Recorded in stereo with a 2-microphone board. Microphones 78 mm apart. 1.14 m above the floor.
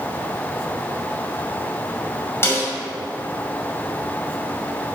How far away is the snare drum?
About 5.5 m.